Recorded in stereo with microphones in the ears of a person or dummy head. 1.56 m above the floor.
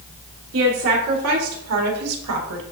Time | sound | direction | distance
0.5 | a woman speaking | 70° right (ahead or behind) | 3 m